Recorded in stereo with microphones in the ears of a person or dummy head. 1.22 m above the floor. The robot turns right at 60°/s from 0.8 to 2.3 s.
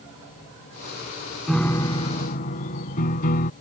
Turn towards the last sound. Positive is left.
turn(degrees=50)